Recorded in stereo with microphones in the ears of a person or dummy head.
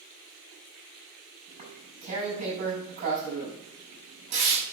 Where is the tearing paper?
45° right (ahead or behind), 6 m.